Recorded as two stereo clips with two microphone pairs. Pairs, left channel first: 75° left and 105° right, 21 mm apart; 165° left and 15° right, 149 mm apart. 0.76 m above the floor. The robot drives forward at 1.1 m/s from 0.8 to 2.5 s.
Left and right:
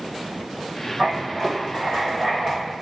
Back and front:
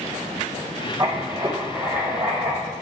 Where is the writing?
70° right, 4.5 m; by 2.7 s 90° right, 4.5 m.